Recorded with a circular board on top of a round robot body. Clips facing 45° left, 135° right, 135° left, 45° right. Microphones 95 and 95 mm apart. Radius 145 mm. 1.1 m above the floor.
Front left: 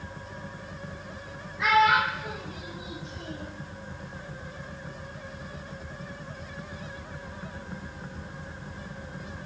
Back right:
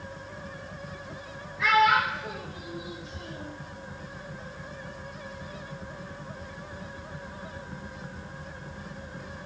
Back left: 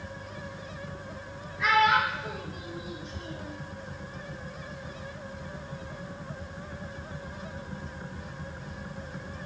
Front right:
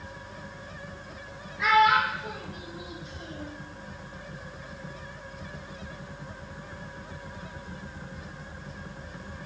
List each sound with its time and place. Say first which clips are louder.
1.6 s a child speaking: even, front right 2 dB; 20° right, 1.0 m; by 3.5 s 15° left, 1.9 m